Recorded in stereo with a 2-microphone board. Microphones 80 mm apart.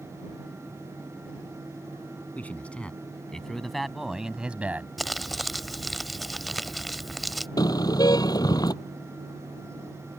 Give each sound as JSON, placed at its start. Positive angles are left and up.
{"t": 2.4, "sound": "a man speaking", "side_deg": 20}
{"t": 5.0, "sound": "crumpling", "side_deg": 0}
{"t": 7.6, "sound": "a car horn", "side_deg": 55}